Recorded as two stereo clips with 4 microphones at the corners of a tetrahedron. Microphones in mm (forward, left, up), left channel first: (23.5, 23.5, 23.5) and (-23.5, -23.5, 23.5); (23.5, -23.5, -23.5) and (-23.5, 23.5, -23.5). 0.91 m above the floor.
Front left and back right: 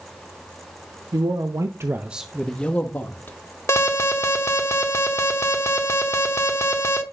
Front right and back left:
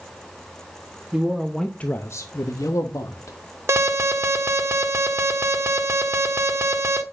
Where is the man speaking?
145° right, 1.3 m; by 3.4 s 10° right, 2.0 m.